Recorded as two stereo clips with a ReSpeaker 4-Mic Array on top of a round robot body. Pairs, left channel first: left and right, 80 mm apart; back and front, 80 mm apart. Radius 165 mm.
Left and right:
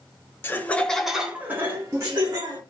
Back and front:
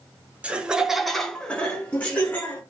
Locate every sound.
0.4 s laughter: 60° left, 1.0 m; by 2.6 s 120° right, 1.5 m